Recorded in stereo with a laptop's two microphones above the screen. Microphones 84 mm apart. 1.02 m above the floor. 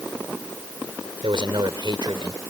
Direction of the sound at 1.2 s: 75° right (ahead or behind).